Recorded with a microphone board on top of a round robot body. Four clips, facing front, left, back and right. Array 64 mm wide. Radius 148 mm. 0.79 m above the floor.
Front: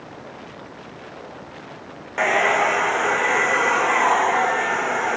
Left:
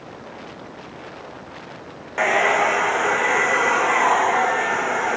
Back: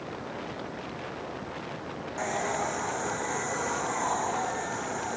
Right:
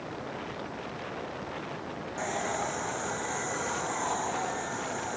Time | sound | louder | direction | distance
2.2 | a hair dryer | left 15 dB, front 12 dB | 45° left | ?